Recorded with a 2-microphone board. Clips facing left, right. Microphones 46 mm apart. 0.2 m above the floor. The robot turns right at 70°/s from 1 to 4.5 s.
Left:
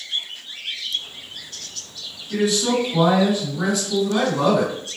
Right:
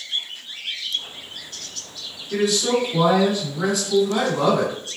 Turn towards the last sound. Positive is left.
turn(degrees=-25)  # may be behind; listen again after turning